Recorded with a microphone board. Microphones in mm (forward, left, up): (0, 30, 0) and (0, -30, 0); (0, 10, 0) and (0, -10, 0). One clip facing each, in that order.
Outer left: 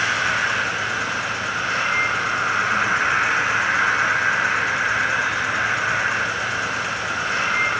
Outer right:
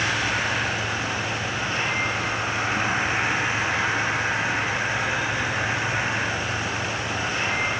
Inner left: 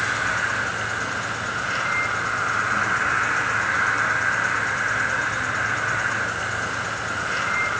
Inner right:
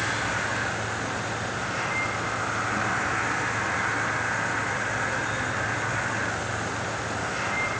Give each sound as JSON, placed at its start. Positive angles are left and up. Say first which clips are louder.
{"t": 0.0, "sound": "an insect", "louder": "outer left 4 dB, inner left 4 dB", "side_deg": 75, "distance_m": 2.5}